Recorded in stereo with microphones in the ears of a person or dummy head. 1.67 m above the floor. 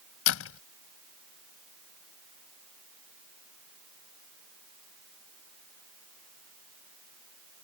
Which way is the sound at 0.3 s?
85° left.